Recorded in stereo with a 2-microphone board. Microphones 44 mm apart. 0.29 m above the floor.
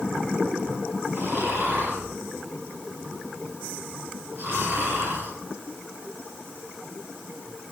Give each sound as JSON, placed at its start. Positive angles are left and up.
{"t": 1.1, "sound": "snoring", "side_deg": -55, "distance_m": 6.5}